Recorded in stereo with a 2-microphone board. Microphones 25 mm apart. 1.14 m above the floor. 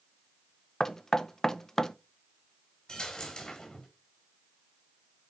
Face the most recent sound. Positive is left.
turn(degrees=25)  # may be behind; listen again after turning